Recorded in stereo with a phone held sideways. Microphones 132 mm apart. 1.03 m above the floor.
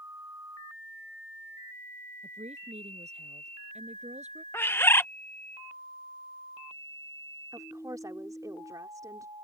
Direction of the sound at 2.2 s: 55° right (ahead or behind).